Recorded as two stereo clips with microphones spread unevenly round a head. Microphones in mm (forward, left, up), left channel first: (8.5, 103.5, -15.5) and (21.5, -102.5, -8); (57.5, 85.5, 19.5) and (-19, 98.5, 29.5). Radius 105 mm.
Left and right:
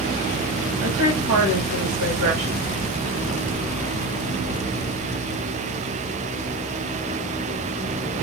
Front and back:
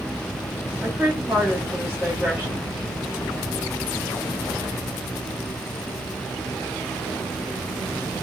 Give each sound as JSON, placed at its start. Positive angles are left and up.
{"t": 0.8, "sound": "a woman speaking", "azimuth_deg": -100, "distance_m": 1.6}